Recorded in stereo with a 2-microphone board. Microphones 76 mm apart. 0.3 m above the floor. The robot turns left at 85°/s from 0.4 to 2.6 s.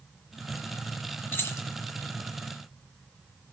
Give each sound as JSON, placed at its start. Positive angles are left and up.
{"t": 1.3, "sound": "keys jangling", "side_deg": 30, "distance_m": 1.7}